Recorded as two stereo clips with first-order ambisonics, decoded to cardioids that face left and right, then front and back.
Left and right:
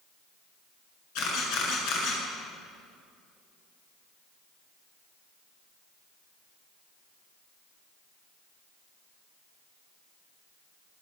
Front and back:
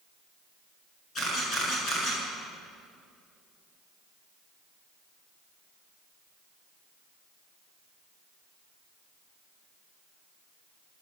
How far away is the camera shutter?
About 9 m.